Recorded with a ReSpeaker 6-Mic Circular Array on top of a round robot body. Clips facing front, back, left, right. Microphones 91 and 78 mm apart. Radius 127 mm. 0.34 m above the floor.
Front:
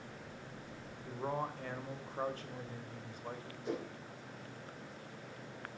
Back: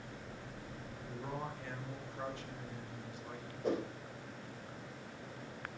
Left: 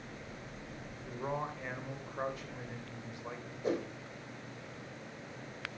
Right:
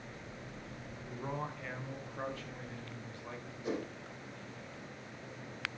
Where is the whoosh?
140° left, 4 m.